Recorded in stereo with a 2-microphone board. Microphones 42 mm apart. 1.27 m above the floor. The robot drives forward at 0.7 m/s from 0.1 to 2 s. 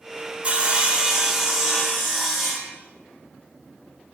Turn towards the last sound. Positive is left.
turn(degrees=-10)  # may be behind; listen again after turning